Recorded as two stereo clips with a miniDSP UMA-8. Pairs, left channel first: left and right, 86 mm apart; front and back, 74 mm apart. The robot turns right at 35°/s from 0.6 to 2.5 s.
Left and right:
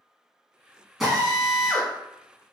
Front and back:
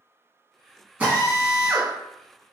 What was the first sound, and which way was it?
A drill, 170° right.